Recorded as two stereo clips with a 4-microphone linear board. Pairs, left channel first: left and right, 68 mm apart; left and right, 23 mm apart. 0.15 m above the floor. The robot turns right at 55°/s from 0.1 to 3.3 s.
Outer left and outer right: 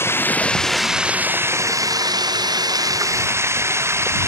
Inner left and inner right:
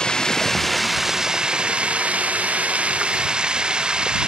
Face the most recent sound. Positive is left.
turn(degrees=-40)